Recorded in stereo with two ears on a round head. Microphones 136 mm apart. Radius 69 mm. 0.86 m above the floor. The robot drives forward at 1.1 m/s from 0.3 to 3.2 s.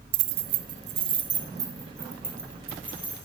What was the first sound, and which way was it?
Keys jangling, 85° right.